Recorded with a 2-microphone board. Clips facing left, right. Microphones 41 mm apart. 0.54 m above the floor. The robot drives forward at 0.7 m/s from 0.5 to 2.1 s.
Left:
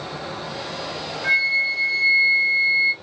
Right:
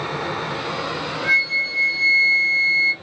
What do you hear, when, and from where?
0.0 s running water: 70° right (ahead or behind), 0.9 m; by 3.0 s 35° right (ahead or behind), 1.5 m
1.2 s a flute: 5° left (ahead or behind), 1.7 m; by 2.9 s 10° left (ahead or behind), 1.2 m